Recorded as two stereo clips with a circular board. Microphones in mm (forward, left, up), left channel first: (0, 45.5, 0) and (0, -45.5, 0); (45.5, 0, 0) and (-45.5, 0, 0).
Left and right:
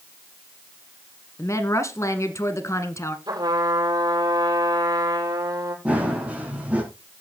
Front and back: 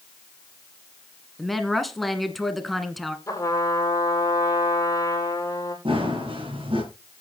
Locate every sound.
1.4 s a woman speaking: 90° left, 1.3 m
3.3 s a trumpet: 55° right, 4.5 m
5.8 s running footsteps: 165° right, 4.5 m